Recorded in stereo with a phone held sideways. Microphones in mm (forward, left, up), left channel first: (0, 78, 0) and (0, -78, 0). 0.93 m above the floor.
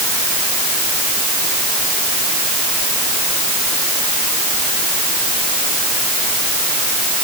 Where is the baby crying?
I don't hear a baby crying.